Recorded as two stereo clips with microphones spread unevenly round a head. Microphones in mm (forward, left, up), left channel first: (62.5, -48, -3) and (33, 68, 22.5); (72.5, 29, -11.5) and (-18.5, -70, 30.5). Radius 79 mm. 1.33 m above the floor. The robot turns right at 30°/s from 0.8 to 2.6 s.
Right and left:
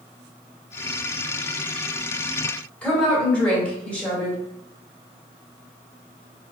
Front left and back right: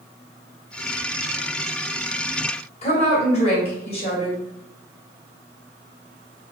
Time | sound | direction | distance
2.8 | a woman speaking | 5° left | 1.9 m